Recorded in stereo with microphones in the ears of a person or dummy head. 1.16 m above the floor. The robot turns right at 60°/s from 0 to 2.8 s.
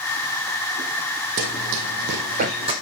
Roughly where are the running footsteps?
Right.